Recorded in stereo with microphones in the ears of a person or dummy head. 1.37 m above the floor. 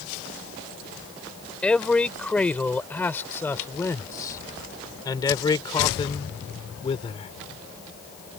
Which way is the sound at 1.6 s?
5° left (ahead or behind).